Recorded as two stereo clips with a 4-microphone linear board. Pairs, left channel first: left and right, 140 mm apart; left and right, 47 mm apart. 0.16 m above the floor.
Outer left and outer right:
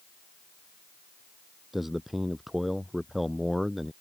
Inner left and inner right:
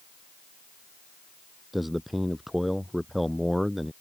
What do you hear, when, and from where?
1.7 s a man speaking: centre (ahead or behind)